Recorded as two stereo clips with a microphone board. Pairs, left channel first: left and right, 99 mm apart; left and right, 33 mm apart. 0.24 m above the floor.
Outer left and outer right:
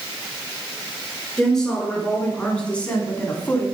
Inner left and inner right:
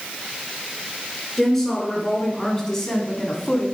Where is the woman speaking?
5° left (ahead or behind), 3 m; by 3.7 s 20° left (ahead or behind), 1.5 m.